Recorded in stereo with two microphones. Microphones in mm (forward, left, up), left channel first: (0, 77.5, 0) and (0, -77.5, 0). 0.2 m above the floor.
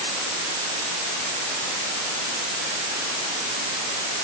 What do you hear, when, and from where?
Only background noise.